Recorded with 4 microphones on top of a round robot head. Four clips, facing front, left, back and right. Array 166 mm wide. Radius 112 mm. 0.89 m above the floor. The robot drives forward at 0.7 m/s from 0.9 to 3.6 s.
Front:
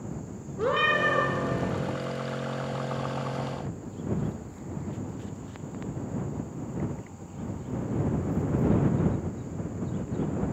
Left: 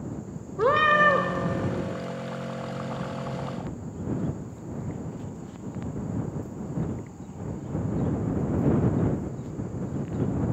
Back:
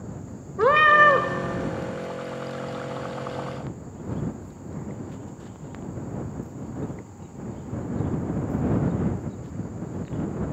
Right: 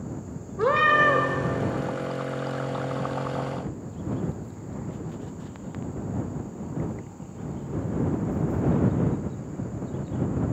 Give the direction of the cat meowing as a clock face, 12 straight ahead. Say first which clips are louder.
Even, back 9 dB; 7 o'clock.